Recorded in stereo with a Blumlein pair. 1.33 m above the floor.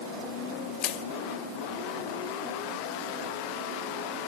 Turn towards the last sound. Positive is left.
turn(degrees=40)